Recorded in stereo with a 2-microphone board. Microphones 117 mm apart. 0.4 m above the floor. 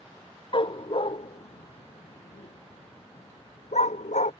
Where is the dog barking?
45° left (ahead or behind); by 4.3 s 80° left.